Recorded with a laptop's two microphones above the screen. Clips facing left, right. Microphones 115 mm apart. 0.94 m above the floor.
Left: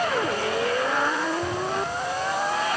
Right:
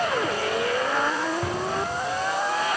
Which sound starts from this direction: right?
An explosion, at 1.4 s.